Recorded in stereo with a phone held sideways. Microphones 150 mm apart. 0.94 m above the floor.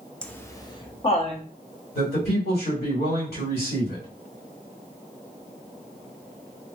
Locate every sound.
0.2 s laughter: 10° left (ahead or behind), 0.7 m; by 1.4 s 45° left (ahead or behind), 1.1 m
1.9 s a man speaking: 75° left (ahead or behind), 2 m